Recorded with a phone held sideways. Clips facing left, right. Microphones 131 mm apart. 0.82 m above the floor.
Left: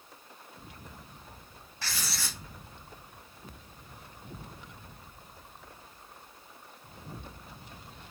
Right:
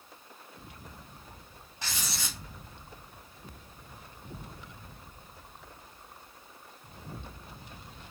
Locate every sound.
1.8 s writing: 20° right (ahead or behind), 0.7 m